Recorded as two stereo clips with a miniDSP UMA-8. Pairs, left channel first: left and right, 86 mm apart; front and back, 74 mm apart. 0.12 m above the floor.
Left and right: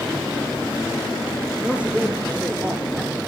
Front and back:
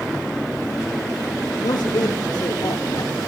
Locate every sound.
1.6 s a man speaking: 15° right, 4.5 m